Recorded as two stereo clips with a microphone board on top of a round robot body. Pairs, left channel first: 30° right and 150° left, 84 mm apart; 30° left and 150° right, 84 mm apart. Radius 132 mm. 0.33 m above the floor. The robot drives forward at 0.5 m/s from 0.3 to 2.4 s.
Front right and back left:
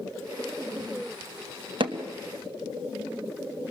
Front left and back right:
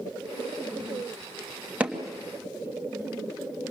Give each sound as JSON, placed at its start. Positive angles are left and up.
{"t": 1.8, "sound": "hammering", "azimuth_deg": 135, "distance_m": 2.5}